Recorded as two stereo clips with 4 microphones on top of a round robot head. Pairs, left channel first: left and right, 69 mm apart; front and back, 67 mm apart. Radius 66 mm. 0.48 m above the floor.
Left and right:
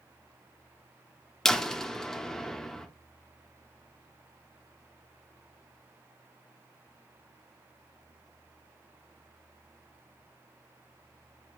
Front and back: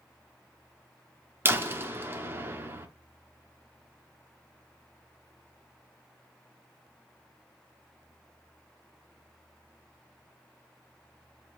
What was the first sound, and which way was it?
A door slam, 165° left.